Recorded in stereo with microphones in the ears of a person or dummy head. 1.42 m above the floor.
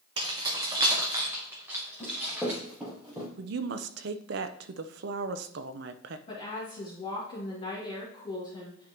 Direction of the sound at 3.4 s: 65° right (ahead or behind).